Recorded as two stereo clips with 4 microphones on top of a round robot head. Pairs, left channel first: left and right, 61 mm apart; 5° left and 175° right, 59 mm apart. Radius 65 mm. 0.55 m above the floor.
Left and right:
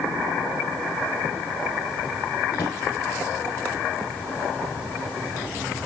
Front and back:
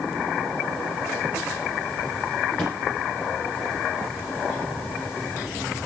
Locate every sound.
2.5 s a drawer: 80° left, 8 m